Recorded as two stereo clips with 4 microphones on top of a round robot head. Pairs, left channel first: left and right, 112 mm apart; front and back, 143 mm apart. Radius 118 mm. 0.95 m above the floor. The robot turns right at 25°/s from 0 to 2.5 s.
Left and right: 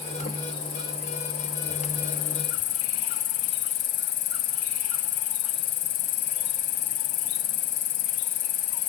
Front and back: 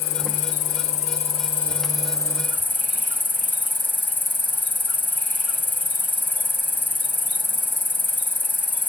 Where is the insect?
10° left, 1.5 m; by 8.9 s 75° left, 1.5 m.